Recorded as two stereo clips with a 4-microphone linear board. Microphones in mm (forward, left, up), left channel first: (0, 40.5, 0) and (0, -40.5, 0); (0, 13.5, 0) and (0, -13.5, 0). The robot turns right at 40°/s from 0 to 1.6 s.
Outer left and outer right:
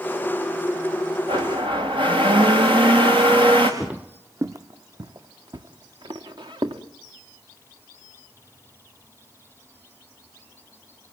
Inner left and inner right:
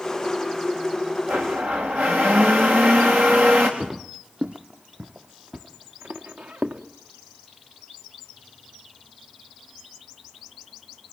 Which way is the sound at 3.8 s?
10° right (ahead or behind).